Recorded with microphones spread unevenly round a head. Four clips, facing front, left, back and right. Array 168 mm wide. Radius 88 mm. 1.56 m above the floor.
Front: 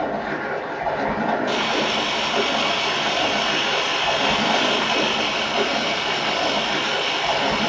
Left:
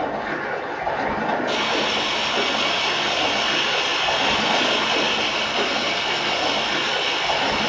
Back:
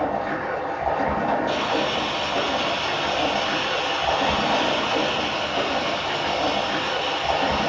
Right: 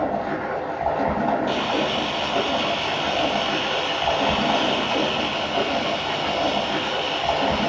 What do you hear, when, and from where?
0.0 s running water: 115° right, 1.6 m
1.5 s a camera shutter: 15° right, 0.7 m